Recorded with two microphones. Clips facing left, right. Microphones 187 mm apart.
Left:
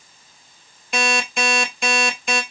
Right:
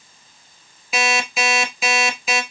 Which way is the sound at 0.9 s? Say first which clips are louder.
Even; 5° right (ahead or behind).